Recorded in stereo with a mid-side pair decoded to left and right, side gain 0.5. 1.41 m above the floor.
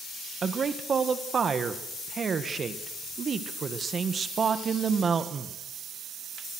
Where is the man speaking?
40° right, 1.6 m.